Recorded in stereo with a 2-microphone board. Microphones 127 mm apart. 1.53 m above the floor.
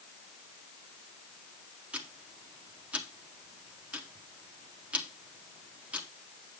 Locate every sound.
1.9 s ticking: 10° right (ahead or behind), 1.4 m